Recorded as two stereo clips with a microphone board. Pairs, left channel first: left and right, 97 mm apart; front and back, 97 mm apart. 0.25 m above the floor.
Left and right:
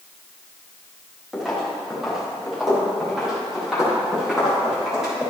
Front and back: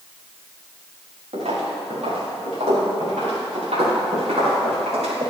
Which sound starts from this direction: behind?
Footsteps, at 1.3 s.